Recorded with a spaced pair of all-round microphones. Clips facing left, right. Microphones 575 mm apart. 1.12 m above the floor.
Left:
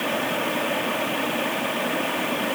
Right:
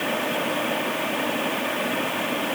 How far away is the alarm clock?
I don't hear an alarm clock.